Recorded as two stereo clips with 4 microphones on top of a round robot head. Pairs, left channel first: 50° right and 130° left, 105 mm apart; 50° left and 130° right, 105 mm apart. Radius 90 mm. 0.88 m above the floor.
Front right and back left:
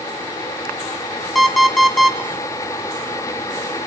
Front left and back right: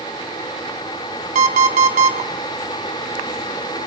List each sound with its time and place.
1.4 s an alarm clock: 140° right, 1.0 m